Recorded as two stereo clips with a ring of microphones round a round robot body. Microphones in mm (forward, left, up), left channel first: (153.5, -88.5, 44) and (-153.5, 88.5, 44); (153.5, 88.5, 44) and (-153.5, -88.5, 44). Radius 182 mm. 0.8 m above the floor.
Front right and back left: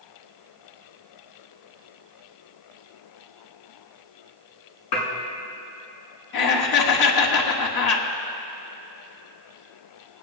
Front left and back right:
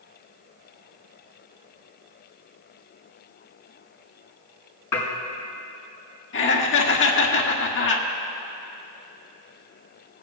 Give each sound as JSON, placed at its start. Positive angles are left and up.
{"t": 4.9, "sound": "dishes clattering", "azimuth_deg": -55, "distance_m": 4.5}
{"t": 6.3, "sound": "laughter", "azimuth_deg": -20, "distance_m": 1.5}